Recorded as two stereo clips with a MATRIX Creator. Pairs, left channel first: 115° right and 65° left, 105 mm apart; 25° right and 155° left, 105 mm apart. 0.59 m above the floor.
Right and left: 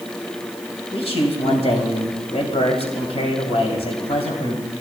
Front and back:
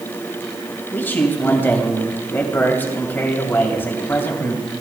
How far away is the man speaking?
About 2.5 m.